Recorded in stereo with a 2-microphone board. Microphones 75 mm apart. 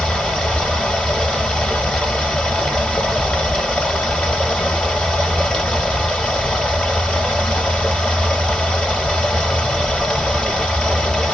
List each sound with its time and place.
0.0 s running water: 15° left (ahead or behind), 1.1 m